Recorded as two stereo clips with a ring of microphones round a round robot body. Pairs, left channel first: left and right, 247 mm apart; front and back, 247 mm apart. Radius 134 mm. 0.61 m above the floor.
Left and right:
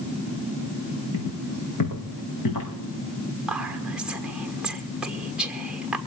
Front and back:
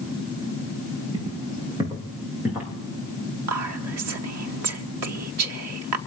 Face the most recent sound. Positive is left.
turn(degrees=-175)